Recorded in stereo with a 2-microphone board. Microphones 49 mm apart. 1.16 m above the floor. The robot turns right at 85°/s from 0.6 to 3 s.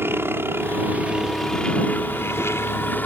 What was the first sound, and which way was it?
A helicopter, 65° right.